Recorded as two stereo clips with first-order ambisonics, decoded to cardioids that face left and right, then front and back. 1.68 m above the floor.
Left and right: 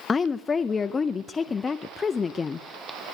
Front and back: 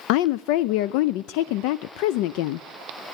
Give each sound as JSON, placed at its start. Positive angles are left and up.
{"t": 0.1, "sound": "a woman speaking", "azimuth_deg": 20, "distance_m": 0.5}